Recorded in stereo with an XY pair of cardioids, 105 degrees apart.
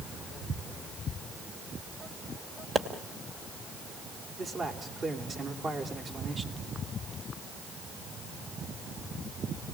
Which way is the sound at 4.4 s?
40° right.